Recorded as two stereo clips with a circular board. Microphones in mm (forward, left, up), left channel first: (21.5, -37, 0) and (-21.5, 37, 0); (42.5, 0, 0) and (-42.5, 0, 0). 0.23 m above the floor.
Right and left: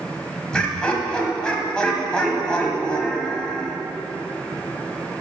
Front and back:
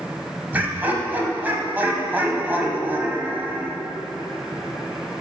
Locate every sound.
0.5 s laughter: 130° right, 1.2 m